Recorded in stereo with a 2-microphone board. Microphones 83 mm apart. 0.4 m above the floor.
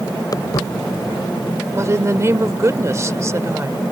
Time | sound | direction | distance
0.3 | footsteps | 45° left (ahead or behind) | ?
1.7 | a woman speaking | 35° right (ahead or behind) | ?